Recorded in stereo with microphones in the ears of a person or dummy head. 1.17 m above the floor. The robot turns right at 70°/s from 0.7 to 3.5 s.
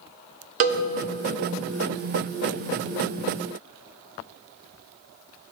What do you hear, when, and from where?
0.6 s a cowbell: 50° right (ahead or behind), 0.6 m; by 0.8 s 45° right (ahead or behind), 0.6 m